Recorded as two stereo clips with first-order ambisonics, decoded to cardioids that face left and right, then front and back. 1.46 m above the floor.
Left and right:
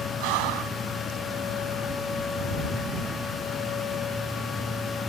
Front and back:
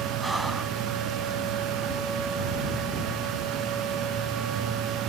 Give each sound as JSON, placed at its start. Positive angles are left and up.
{"t": 0.2, "sound": "breathing", "azimuth_deg": -100}